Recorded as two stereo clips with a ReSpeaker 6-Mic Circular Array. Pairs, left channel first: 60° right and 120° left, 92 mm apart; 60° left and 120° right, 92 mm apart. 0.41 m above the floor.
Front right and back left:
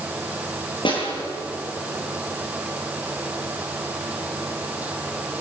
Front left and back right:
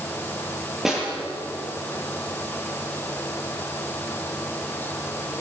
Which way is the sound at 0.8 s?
35° right.